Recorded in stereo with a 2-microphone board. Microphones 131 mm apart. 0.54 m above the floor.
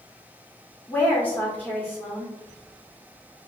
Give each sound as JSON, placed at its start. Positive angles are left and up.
{"t": 0.9, "sound": "a woman speaking", "side_deg": 15, "distance_m": 1.7}